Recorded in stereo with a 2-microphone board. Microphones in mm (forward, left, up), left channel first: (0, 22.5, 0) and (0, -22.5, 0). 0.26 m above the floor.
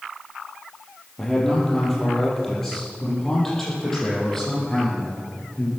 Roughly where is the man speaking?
Centre.